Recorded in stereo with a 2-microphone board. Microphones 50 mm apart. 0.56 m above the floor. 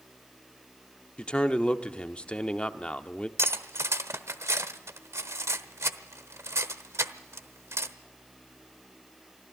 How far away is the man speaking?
About 0.9 m.